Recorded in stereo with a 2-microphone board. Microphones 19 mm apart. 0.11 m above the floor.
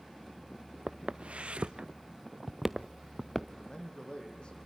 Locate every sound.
0.9 s footsteps: 80° right, 0.8 m; by 3.5 s 5° left (ahead or behind), 1.0 m
3.6 s a man speaking: 55° left (ahead or behind), 5 m